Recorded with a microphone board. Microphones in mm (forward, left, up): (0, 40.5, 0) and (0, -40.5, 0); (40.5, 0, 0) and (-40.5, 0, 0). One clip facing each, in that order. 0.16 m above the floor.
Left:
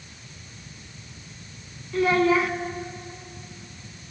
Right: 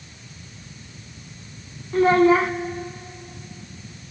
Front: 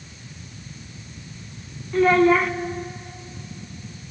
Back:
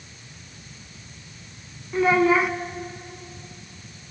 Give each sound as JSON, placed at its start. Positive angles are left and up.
{"t": 1.9, "sound": "a child speaking", "azimuth_deg": -105, "distance_m": 0.7}